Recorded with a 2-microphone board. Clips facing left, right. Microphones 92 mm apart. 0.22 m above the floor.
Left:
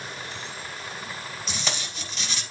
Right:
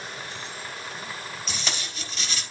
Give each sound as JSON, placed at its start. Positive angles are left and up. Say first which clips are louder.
{"t": 1.5, "sound": "tape being pulled", "louder": "left 3 dB", "side_deg": 0, "distance_m": 3.5}